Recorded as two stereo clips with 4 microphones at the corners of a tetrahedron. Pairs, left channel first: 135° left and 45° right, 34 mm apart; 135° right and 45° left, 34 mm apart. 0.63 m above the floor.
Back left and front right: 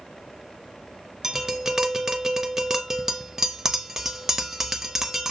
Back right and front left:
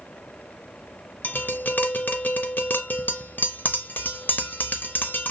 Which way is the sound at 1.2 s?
120° right.